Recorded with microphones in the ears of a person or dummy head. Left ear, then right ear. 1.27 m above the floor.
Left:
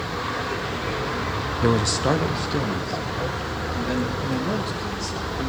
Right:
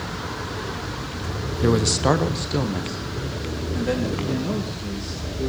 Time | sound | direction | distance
1.6 | a man speaking | 15° left (ahead or behind) | 0.6 m
4.2 | a man speaking | 20° left (ahead or behind) | 1.8 m